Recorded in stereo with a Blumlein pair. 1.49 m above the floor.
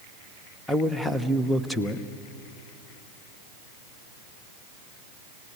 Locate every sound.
0.7 s a man speaking: 5° left, 1.2 m